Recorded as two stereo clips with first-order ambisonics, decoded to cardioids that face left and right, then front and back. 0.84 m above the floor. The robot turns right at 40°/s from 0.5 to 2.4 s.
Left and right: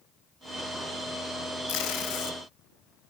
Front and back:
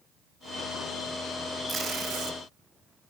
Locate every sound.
1.7 s tape being pulled: 110° left, 1.4 m; by 2.4 s 140° left, 1.4 m